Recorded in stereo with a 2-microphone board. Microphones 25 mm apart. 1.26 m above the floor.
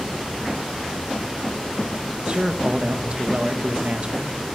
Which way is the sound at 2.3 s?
45° right (ahead or behind).